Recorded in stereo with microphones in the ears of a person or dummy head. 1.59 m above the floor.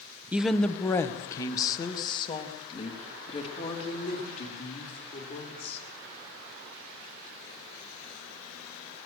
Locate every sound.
0.3 s a woman speaking: 5° right (ahead or behind), 1.0 m; by 5.8 s 45° left (ahead or behind), 6 m